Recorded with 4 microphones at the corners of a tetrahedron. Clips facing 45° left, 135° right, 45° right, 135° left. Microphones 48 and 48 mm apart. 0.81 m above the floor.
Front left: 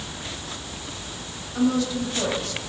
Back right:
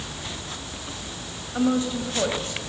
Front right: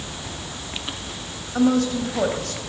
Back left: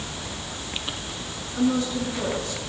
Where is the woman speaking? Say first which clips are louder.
Front left 1 dB, front right 4 dB; 70° right, 3.5 m.